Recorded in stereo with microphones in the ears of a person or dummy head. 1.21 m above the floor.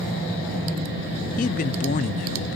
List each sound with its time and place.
1.4 s a man speaking: 35° left (ahead or behind), 0.6 m